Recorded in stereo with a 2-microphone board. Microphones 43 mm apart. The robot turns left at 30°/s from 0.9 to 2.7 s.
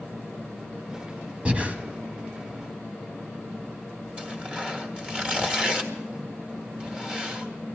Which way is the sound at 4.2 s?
20° right (ahead or behind).